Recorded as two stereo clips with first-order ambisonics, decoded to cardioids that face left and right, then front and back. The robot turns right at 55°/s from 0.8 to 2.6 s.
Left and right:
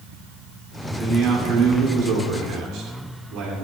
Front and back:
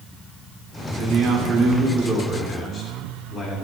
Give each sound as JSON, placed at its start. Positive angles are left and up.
{"t": 1.0, "sound": "a man speaking", "azimuth_deg": -150, "distance_m": 3.0}